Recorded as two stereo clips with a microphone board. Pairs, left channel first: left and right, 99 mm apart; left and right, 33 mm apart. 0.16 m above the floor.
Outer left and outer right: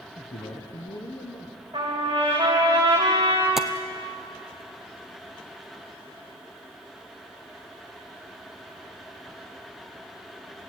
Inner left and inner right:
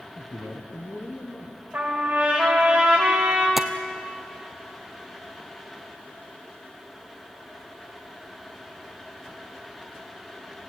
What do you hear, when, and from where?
0.2 s a man speaking: 70° left (ahead or behind), 3 m
1.7 s a trumpet: 50° right (ahead or behind), 8.5 m
3.6 s tapping: 5° right (ahead or behind), 1.1 m